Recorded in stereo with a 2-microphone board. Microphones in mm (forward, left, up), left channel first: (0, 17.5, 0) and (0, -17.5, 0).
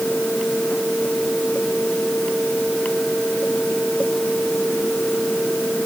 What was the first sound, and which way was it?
Only background noise.